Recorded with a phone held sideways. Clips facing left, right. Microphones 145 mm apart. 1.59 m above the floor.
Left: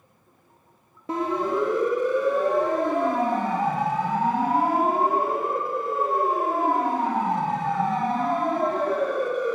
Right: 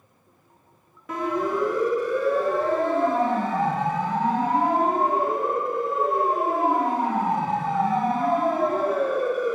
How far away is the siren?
About 3 m.